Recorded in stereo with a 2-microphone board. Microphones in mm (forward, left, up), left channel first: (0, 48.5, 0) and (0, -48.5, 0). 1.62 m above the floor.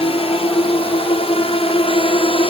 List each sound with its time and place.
0.0 s a drone: 75° left (ahead or behind)